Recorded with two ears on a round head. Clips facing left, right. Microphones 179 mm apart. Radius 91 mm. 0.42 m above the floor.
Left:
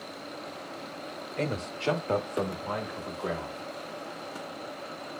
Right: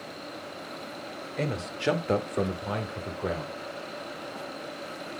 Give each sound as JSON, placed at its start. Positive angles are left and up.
{"t": 1.4, "sound": "a man speaking", "side_deg": -5, "distance_m": 1.2}